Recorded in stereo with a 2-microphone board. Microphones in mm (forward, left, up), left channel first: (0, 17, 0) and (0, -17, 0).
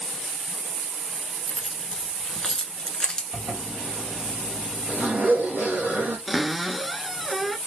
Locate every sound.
1.5 s keys jangling: 20° left (ahead or behind), 1.1 m
3.3 s a zipper: 65° right (ahead or behind), 1.8 m
6.3 s a cupboard door: 5° right (ahead or behind), 0.8 m